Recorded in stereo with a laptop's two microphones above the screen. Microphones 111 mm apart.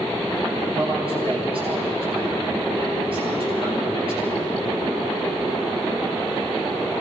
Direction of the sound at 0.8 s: 50° right (ahead or behind).